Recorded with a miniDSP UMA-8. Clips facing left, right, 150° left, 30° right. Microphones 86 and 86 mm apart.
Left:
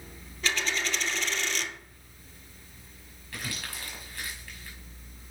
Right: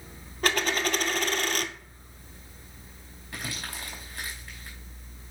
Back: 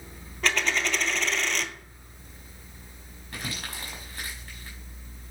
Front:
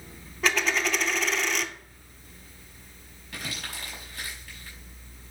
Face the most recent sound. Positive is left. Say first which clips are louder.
# right 1 dB, back 1 dB
turn(degrees=-160)